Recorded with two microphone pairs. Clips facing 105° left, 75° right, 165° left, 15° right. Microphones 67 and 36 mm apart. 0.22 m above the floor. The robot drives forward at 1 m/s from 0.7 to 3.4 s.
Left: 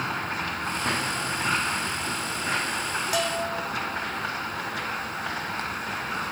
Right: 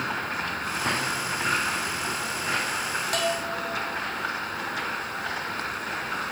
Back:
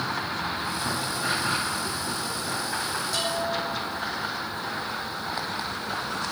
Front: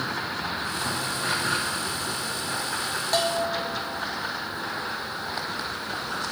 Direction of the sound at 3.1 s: 20° left.